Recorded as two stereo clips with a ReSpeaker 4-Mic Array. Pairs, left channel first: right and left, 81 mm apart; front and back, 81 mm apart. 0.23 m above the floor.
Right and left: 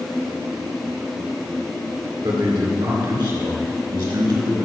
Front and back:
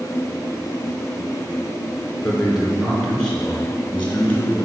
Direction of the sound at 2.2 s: 90° left.